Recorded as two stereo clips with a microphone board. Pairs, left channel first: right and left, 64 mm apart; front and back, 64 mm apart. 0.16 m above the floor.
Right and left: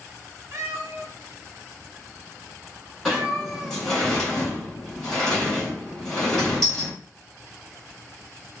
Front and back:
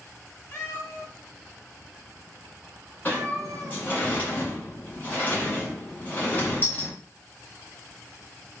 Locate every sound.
0.5 s a cat meowing: 50° left, 1.4 m; by 3.8 s 175° right, 1.1 m
3.0 s a sliding door: 10° right, 1.8 m